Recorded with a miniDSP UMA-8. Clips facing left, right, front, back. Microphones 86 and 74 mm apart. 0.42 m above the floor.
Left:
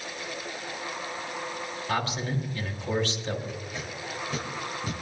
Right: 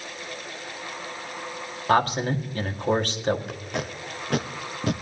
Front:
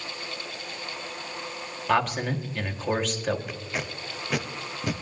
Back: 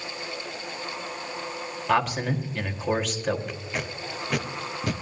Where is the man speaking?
90° right, 1.7 m.